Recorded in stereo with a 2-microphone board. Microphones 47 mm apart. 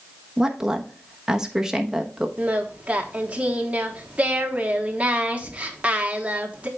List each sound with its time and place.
0.4 s a woman speaking: 15° right (ahead or behind), 1.0 m
2.4 s singing: 25° right (ahead or behind), 1.1 m